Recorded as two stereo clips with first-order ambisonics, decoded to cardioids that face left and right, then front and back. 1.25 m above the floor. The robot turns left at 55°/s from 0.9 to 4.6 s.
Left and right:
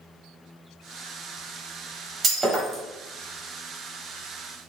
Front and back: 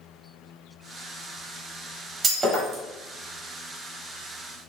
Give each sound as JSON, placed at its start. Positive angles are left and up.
{"t": 2.2, "sound": "breaking glass", "azimuth_deg": -135, "distance_m": 1.1}